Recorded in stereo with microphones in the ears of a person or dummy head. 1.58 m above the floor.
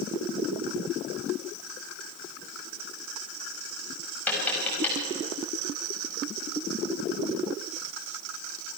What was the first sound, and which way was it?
Tapping, 10° left (ahead or behind).